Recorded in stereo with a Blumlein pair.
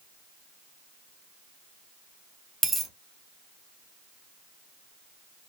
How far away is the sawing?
No sawing in this recording.